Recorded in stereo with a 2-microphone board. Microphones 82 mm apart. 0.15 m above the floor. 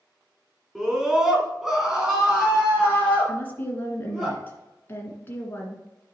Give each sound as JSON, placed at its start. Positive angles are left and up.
{"t": 0.8, "sound": "a scream", "side_deg": -5, "distance_m": 1.9}
{"t": 3.3, "sound": "a woman speaking", "side_deg": 25, "distance_m": 2.0}